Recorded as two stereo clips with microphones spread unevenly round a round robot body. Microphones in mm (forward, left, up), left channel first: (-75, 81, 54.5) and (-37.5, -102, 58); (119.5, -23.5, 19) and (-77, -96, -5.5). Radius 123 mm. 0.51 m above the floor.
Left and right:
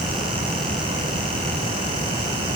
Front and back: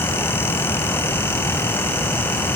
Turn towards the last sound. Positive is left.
No sound to turn to.